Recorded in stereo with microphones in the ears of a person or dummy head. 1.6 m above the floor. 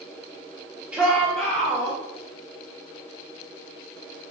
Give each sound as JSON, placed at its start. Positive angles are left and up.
{"t": 0.9, "sound": "a shout", "side_deg": -5, "distance_m": 2.0}